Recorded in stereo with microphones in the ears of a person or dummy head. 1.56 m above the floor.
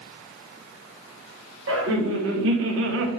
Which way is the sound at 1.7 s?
80° right.